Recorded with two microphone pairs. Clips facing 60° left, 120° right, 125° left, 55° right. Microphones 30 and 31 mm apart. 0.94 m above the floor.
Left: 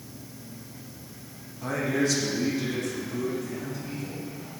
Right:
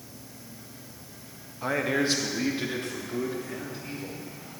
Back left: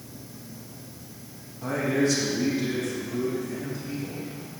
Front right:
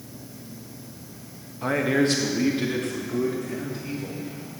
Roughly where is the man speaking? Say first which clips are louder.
Even, front right 3 dB; right.